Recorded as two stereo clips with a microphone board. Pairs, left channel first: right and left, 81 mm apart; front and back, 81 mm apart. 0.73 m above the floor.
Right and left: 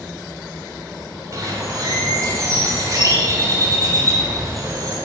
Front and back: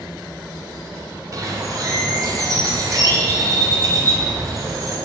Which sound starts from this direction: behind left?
A bird, at 1.3 s.